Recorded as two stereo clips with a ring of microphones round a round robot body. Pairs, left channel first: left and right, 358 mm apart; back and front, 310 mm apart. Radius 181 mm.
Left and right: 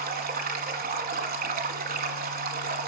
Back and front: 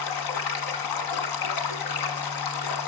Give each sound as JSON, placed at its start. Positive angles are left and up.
{"t": 0.0, "sound": "running water", "azimuth_deg": -155, "distance_m": 1.7}